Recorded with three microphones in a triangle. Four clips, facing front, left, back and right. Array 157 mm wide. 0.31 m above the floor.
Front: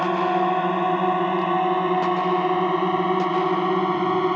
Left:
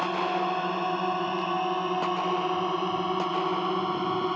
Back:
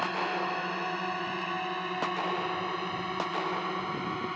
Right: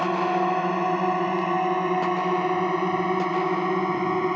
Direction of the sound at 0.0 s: 20° right.